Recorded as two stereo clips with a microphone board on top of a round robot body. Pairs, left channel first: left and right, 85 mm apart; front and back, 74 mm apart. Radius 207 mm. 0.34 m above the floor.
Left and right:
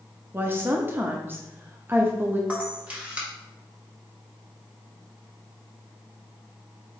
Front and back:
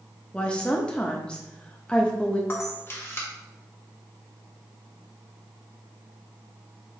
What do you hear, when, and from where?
0.3 s a woman speaking: 60° right, 0.8 m
2.5 s a camera shutter: 25° right, 1.7 m